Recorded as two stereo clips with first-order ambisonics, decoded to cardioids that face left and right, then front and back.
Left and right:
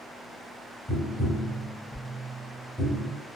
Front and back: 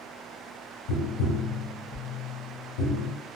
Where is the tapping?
10° right, 1.2 m.